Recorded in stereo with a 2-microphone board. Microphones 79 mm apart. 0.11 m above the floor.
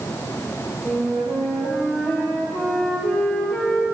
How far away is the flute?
About 5 m.